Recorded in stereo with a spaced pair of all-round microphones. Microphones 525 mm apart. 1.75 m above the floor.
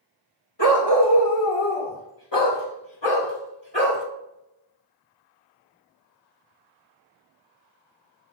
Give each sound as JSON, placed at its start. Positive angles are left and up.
{"t": 0.6, "sound": "a dog barking", "side_deg": 45, "distance_m": 1.7}